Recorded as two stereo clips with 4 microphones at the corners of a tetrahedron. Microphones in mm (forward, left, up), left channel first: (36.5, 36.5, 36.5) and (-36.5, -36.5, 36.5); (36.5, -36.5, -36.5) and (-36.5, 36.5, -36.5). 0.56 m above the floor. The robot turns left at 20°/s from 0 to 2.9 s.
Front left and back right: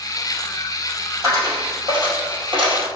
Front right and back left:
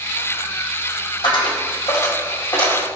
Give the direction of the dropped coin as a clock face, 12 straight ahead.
3 o'clock.